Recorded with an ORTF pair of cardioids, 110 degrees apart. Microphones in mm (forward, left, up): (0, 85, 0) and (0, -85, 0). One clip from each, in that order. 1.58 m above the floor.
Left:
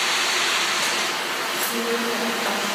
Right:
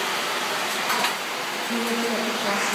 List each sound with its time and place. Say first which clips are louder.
1.7 s a woman speaking: left 1 dB; 35° right, 1.4 m